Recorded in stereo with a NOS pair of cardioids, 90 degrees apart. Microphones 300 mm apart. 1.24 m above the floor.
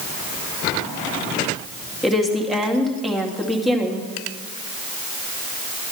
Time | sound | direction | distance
2.0 | a woman speaking | straight ahead | 2 m